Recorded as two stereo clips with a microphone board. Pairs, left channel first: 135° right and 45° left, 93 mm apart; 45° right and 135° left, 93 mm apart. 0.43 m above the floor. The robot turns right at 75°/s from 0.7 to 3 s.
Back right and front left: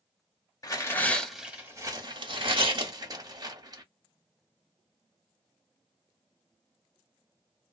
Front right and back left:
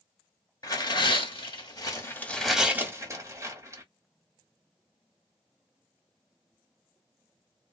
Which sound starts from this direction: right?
Tearing paper, at 0.6 s.